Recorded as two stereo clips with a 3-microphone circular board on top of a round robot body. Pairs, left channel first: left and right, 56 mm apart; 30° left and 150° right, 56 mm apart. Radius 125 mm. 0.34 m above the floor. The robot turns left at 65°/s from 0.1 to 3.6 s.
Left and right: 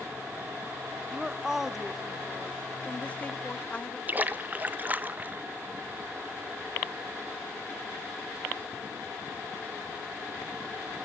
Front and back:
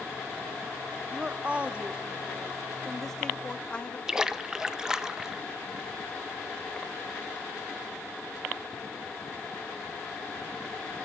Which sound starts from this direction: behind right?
A woman speaking, at 1.1 s.